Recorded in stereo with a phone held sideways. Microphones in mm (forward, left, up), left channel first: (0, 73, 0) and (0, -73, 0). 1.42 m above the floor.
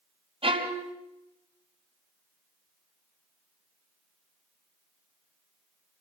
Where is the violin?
40° right (ahead or behind), 3 m.